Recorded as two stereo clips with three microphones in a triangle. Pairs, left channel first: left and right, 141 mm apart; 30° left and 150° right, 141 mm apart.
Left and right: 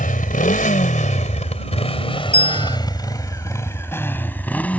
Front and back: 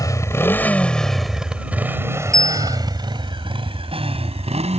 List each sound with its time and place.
0.0 s a motorcycle: 95° left; by 4.8 s 170° left
2.3 s a bell: 125° right